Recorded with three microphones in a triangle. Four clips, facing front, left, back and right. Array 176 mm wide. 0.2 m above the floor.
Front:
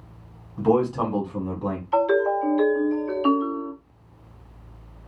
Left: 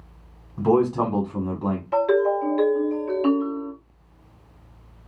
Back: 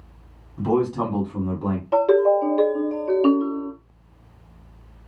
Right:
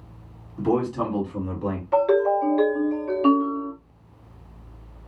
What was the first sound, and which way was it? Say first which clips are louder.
A man speaking: left 4 dB, front 1 dB; 60° left.